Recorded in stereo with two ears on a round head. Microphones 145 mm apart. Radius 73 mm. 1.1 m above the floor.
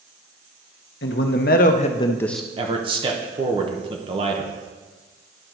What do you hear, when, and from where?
1.0 s a man speaking: 70° left (ahead or behind), 1.0 m; by 2.5 s 5° right (ahead or behind), 0.5 m
2.6 s a man speaking: 30° right (ahead or behind), 0.9 m